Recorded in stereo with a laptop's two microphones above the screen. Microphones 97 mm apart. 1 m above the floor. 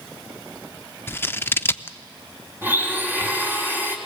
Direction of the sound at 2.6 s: 20° right (ahead or behind).